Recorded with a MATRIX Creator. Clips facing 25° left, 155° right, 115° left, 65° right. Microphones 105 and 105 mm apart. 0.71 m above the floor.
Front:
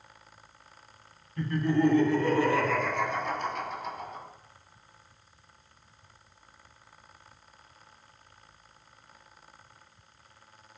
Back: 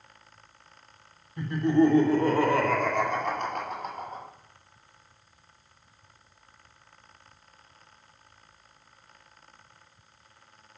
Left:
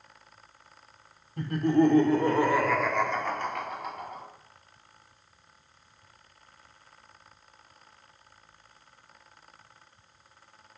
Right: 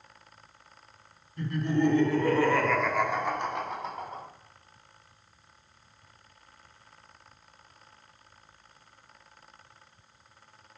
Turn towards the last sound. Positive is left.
turn(degrees=-115)